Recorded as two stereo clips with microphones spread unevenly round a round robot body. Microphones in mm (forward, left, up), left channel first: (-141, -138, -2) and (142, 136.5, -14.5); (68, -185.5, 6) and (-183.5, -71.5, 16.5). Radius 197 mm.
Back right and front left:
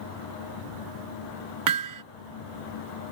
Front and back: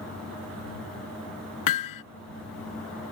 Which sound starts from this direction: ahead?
Hammering, at 1.7 s.